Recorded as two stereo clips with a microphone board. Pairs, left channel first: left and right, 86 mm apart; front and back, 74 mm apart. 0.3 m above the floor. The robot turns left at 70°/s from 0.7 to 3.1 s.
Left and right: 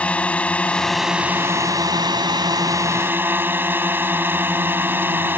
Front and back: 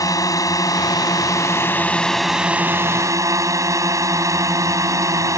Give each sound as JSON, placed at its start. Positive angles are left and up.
{"t": 0.0, "sound": "a drone", "azimuth_deg": 20}